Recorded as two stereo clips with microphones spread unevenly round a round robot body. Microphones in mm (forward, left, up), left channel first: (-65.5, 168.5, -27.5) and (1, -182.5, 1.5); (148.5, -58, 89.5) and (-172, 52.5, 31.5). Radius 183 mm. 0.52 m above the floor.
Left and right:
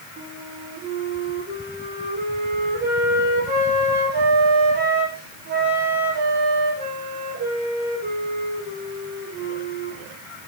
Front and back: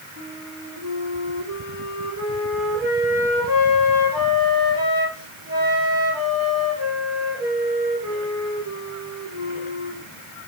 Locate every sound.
0.2 s a flute: 145° right, 3.5 m